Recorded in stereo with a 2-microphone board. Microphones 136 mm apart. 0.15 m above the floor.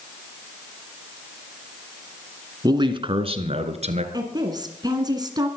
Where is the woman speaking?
30° right (ahead or behind), 2.0 m.